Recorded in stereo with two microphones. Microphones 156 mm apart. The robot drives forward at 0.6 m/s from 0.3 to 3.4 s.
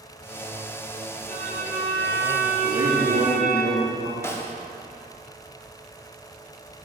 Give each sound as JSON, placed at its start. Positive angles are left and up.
{"t": 1.3, "sound": "a violin", "side_deg": -55, "distance_m": 1.8}
{"t": 2.6, "sound": "a man speaking", "side_deg": -70, "distance_m": 2.0}
{"t": 4.2, "sound": "a snare drum", "side_deg": 15, "distance_m": 0.7}